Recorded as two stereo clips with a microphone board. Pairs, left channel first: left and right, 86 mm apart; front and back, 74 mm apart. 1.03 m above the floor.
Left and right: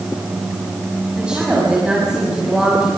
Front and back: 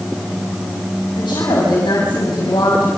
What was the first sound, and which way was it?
A woman speaking, 10° right.